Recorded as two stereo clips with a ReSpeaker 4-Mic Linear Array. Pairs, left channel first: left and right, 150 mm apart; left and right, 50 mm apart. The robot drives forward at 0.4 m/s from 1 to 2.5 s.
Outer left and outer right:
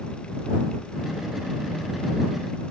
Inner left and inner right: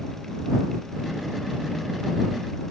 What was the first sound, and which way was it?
Only background noise.